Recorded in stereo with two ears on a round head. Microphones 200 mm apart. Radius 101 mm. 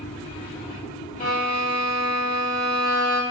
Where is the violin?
25° left (ahead or behind), 1.3 m.